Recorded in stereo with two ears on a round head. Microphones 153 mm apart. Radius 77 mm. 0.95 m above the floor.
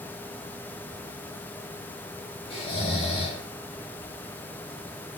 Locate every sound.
2.5 s snoring: 35° left (ahead or behind), 4.5 m